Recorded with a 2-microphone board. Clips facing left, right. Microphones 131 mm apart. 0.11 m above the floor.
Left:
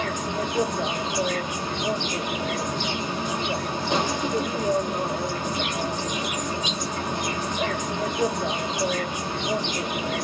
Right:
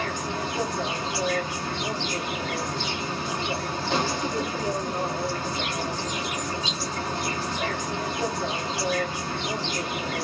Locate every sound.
0.0 s an insect: 15° left (ahead or behind), 0.9 m